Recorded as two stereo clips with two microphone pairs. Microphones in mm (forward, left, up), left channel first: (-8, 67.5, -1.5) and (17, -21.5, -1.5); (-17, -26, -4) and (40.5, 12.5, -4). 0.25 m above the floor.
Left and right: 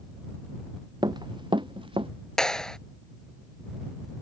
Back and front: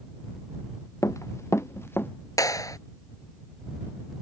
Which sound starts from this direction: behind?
A clap, at 2.4 s.